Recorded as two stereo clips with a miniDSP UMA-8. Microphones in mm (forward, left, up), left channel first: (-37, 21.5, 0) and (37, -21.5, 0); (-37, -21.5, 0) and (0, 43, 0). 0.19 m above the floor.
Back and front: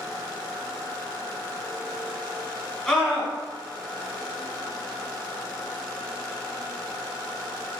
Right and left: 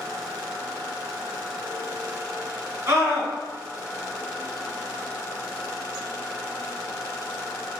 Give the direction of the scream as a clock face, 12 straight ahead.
10 o'clock.